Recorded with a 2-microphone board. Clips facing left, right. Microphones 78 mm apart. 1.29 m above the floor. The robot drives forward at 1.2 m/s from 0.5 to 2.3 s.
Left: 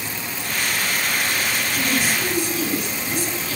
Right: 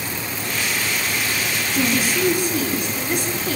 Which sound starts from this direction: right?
A woman speaking, at 1.8 s.